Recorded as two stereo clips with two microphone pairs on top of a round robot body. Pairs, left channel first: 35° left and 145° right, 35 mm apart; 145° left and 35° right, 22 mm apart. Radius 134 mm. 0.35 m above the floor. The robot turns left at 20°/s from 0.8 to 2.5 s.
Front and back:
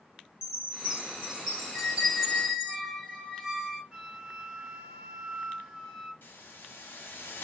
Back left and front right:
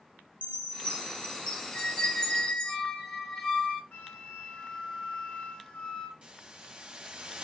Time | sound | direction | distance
0.4 | a chime | 140° left | 2 m
1.7 | a squeak | 125° left | 1.9 m
3.9 | a flute | 120° left | 1.0 m
6.2 | a hiss | 5° left | 0.7 m